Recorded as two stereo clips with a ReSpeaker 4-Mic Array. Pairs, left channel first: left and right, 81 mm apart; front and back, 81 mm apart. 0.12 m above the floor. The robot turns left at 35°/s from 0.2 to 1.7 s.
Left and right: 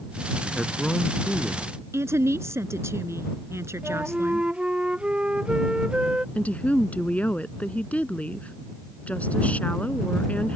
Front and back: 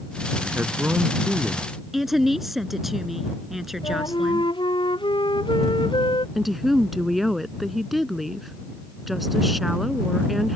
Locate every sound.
0.4 s a man speaking: 170° left; by 1.7 s 125° left
1.9 s a woman speaking: 95° right
3.8 s a flute: 15° right
6.3 s a woman speaking: 95° left